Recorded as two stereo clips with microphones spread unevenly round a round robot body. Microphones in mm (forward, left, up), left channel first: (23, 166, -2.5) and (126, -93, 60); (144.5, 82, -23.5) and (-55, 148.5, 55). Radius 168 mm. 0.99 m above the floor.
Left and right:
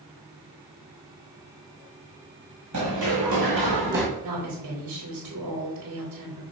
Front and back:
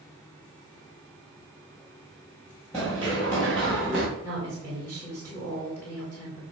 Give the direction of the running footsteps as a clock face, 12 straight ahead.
4 o'clock.